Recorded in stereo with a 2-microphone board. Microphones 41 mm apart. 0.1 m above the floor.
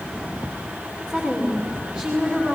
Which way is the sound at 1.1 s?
20° right (ahead or behind).